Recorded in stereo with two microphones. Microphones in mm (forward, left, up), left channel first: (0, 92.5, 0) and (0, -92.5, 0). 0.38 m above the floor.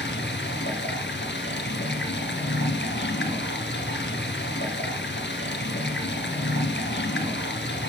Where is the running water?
90° left, 1.7 m.